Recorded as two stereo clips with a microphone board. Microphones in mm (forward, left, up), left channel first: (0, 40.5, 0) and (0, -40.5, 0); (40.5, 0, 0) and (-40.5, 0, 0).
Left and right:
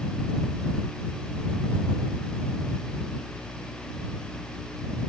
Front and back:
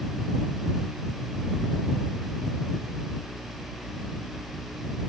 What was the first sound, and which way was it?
Only background noise.